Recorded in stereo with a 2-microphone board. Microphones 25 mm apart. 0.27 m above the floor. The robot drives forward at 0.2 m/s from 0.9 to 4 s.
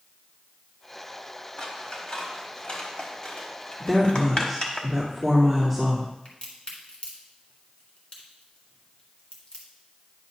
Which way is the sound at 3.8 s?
Centre (ahead or behind).